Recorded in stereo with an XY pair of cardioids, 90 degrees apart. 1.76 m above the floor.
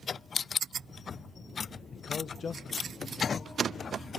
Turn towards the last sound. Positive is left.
turn(degrees=50)